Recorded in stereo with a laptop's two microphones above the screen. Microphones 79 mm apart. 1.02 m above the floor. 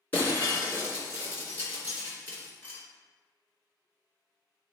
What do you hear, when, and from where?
0.1 s breaking glass: 25° left (ahead or behind), 2.5 m